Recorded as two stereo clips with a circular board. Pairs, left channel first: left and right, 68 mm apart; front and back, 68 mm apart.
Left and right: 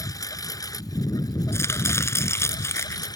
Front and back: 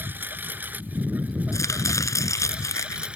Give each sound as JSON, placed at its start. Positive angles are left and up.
{"t": 0.0, "sound": "a lawn mower", "azimuth_deg": 120}
{"t": 1.5, "sound": "chopping", "azimuth_deg": 40}